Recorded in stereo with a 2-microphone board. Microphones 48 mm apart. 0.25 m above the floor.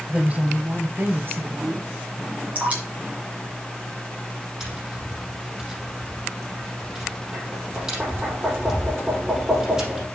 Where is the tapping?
15° right (ahead or behind), 4.5 m.